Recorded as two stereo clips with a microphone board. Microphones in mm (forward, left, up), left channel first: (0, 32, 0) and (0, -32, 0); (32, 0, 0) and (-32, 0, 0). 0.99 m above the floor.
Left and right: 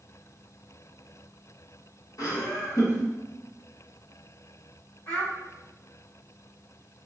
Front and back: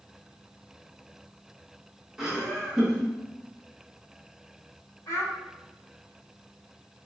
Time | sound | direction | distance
2.2 | laughter | 100° left | 1.1 m
5.1 | a child speaking | 45° left | 2 m